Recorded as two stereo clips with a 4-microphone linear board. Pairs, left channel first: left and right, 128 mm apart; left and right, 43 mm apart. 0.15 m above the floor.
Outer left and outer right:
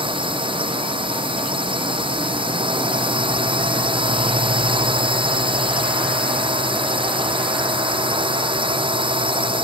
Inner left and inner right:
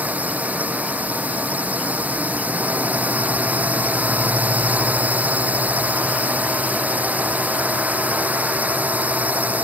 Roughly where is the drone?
Right.